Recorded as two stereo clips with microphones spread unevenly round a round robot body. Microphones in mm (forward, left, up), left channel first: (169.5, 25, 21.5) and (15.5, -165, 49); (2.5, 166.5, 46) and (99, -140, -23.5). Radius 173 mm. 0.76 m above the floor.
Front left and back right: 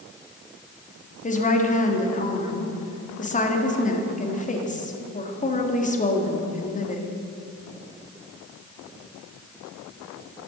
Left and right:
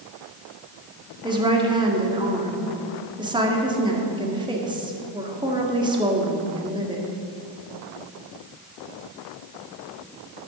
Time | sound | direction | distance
1.2 | a woman speaking | 5° right | 1.7 m